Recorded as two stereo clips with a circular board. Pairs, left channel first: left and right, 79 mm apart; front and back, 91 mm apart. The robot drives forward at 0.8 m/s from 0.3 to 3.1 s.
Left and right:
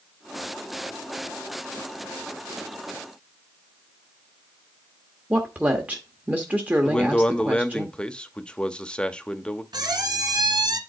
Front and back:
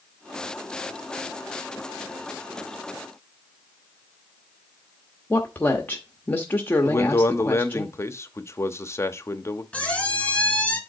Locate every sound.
5.3 s a woman speaking: 40° right, 0.8 m
6.8 s a man speaking: 20° left, 0.6 m
9.7 s a squeak: 75° right, 1.4 m